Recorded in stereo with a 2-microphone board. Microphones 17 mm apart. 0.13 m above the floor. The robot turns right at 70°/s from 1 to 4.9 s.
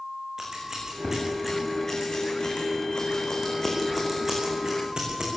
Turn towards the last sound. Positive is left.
turn(degrees=-55)  # may be behind; listen again after turning